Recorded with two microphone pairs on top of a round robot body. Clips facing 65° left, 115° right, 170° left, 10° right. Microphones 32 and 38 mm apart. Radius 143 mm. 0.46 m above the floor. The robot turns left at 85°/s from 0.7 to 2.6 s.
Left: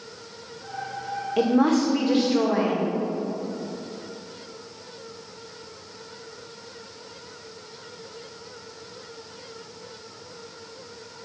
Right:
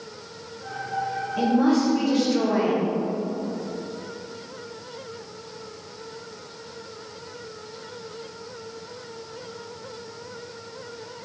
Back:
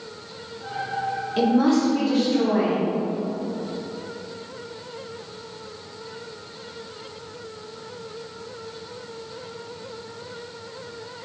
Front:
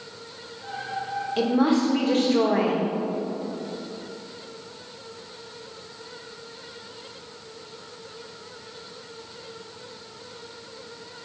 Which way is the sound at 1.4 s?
80° left.